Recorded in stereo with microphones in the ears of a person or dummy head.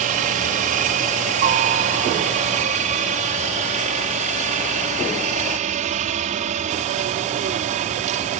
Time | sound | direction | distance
0.0 | a helicopter | 40° right (ahead or behind) | ?